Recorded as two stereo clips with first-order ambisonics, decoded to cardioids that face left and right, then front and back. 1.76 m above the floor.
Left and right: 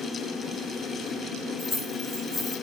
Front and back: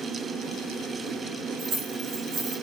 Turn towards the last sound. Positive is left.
turn(degrees=170)